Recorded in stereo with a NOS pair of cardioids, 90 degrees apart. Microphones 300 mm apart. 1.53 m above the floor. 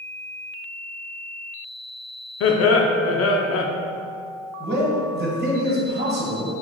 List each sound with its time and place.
2.4 s laughter: 50° left, 0.5 m
4.6 s a man speaking: 35° right, 1.3 m